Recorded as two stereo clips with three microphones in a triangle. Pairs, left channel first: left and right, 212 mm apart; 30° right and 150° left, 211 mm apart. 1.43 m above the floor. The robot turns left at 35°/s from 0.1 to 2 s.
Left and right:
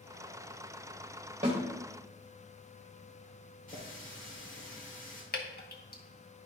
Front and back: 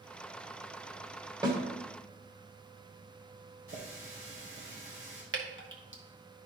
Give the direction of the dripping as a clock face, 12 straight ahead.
8 o'clock.